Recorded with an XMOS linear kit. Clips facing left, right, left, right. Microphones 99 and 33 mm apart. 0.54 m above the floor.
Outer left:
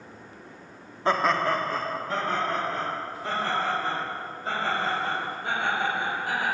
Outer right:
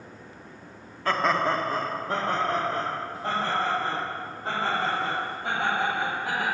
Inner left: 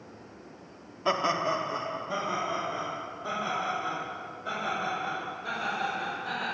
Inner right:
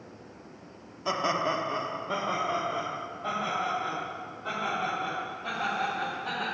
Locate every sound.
1.1 s laughter: 25° left (ahead or behind), 0.7 m; by 6.4 s 60° right (ahead or behind), 7 m